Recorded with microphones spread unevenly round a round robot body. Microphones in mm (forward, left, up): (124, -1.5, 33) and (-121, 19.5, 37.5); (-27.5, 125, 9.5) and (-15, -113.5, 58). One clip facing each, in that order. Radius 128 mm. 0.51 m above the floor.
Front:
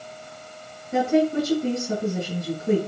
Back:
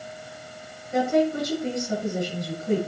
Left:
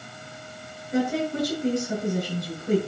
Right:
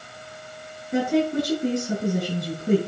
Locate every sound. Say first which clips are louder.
0.9 s a woman speaking: front 2 dB, right 3 dB; 75° right, 5 m